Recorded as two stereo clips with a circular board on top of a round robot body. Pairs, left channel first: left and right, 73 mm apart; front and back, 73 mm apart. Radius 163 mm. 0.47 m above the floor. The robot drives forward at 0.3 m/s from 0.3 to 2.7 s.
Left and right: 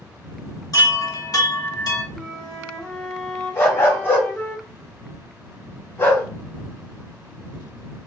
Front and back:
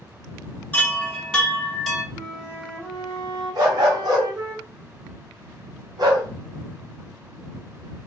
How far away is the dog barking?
About 1.0 m.